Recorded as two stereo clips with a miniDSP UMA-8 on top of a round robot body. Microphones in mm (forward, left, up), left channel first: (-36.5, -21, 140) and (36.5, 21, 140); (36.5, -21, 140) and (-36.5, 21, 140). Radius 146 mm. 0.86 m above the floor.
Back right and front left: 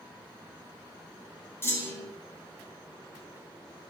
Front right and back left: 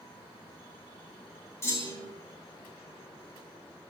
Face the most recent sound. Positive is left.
turn(degrees=-90)